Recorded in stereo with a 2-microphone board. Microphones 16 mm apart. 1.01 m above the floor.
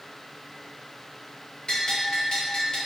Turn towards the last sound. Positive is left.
turn(degrees=55)  # may be behind; listen again after turning